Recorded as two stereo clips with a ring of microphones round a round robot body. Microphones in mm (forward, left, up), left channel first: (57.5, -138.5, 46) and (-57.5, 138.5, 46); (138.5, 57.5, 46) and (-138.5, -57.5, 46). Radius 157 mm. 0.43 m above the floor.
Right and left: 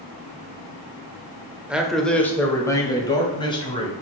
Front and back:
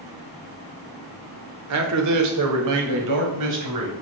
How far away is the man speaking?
About 1.2 m.